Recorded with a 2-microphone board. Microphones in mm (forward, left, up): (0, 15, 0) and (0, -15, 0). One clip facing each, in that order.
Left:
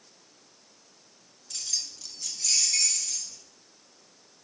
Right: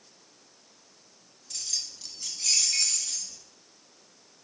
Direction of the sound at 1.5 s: 15° left (ahead or behind).